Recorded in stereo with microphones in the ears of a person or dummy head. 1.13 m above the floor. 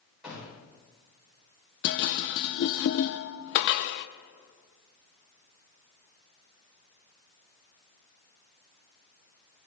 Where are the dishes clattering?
60° left (ahead or behind), 0.5 m.